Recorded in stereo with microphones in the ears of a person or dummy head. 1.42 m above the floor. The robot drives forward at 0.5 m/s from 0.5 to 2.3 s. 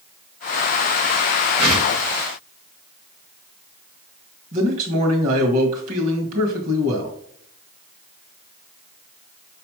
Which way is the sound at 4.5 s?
45° right (ahead or behind).